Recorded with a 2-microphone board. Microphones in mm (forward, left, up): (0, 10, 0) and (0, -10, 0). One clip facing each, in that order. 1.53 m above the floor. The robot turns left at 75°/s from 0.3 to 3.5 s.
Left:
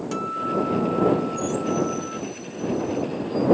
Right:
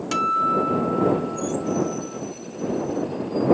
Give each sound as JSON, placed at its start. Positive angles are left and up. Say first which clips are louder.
{"t": 0.1, "sound": "a guitar", "louder": "right 6 dB", "azimuth_deg": -120}